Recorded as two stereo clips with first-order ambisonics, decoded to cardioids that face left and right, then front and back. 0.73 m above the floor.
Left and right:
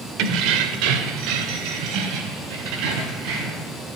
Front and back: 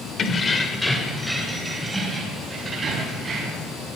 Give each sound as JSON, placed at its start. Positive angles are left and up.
{"t": 0.2, "sound": "keys jangling", "azimuth_deg": -65, "distance_m": 2.0}